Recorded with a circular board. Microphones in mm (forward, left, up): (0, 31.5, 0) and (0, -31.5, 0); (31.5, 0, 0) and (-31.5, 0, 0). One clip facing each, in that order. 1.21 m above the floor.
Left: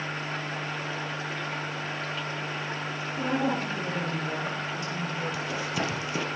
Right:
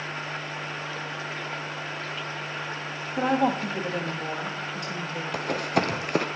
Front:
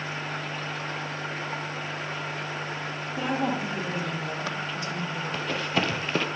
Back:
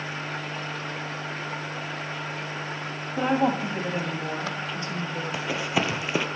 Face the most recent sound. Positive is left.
turn(degrees=-100)